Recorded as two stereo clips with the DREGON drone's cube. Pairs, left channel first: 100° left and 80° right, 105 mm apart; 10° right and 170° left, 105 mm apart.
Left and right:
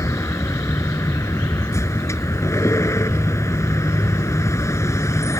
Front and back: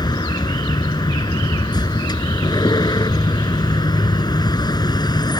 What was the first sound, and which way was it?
A vehicle, 40° left.